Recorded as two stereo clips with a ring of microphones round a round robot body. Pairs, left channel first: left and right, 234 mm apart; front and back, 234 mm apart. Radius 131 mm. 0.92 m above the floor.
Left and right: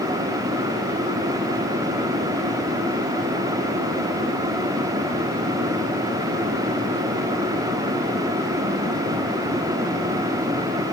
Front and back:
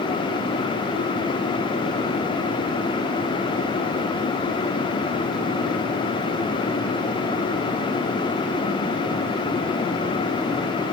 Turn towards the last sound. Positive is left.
No sound to turn to.